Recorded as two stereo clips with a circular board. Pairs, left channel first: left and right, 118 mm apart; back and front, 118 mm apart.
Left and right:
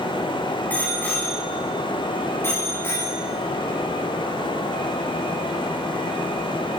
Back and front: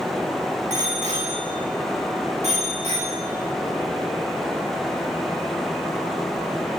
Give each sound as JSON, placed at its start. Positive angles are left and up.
{"t": 0.7, "sound": "a bicycle bell", "azimuth_deg": 15, "distance_m": 7.5}